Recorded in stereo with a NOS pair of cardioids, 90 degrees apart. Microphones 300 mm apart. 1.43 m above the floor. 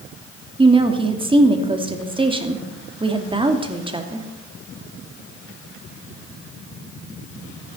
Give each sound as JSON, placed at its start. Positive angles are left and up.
{"t": 0.6, "sound": "a woman speaking", "azimuth_deg": -15, "distance_m": 2.5}